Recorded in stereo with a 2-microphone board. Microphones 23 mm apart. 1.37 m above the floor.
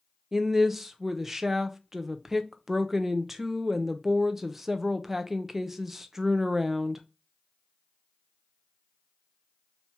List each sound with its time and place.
0.3 s a woman speaking: 15° right (ahead or behind), 0.6 m